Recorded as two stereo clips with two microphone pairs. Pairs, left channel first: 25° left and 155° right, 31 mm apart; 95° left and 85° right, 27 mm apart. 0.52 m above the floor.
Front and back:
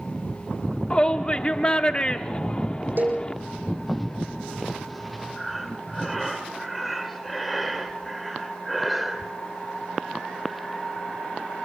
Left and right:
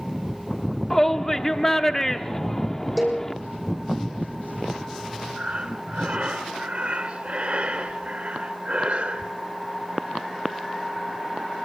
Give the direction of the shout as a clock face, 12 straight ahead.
11 o'clock.